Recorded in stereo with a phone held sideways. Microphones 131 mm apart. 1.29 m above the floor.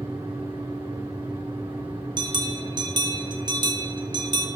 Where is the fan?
45° right (ahead or behind), 2.5 m.